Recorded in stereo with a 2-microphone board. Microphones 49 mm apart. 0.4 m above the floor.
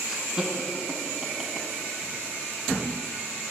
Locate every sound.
0.1 s laughter: 15° right (ahead or behind), 5 m